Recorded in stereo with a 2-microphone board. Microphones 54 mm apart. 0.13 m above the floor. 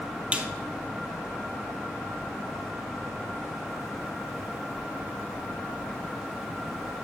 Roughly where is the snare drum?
Right.